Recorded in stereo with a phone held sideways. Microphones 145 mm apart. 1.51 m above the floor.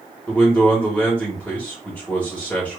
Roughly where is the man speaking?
Centre.